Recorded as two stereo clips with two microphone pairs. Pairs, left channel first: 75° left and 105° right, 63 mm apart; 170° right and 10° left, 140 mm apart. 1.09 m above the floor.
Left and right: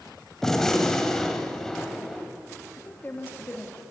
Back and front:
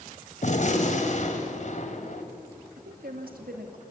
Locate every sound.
0.4 s a gunshot: 160° left, 2 m
2.8 s a woman speaking: 15° left, 2 m